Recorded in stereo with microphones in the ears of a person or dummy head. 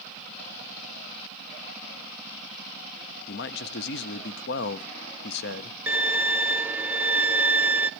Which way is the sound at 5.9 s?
5° right (ahead or behind).